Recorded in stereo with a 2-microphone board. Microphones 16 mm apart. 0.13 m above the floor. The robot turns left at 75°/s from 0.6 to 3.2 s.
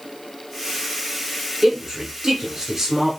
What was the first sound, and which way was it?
A man speaking, 15° right (ahead or behind).